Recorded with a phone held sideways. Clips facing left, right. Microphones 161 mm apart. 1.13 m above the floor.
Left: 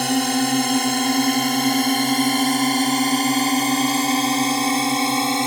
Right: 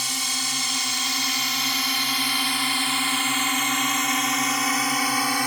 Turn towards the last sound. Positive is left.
turn(degrees=25)  # may be behind; listen again after turning